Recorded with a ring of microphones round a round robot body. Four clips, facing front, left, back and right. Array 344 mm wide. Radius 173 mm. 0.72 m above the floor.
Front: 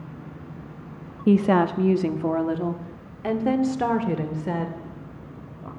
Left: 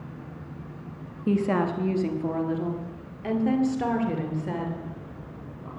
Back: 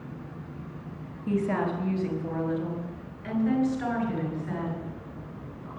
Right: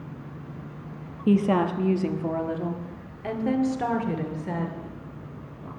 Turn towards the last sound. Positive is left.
turn(degrees=5)